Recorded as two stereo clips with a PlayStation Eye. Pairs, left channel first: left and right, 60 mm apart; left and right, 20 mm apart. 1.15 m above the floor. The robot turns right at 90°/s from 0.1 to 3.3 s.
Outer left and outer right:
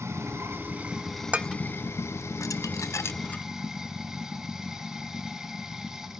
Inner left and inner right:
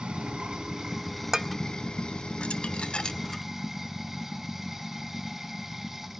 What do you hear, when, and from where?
0.0 s running water: 95° right, 1.4 m; by 6.2 s 165° right, 1.4 m
1.3 s dishes clattering: 20° right (ahead or behind), 0.6 m; by 3.4 s 25° left (ahead or behind), 0.6 m